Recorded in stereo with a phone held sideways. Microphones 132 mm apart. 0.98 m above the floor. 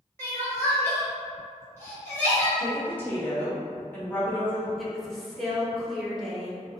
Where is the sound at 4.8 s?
Centre (ahead or behind), 0.5 m.